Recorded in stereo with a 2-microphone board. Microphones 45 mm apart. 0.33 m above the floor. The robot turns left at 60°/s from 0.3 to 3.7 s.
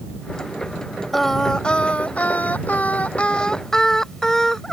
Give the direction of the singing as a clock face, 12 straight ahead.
6 o'clock.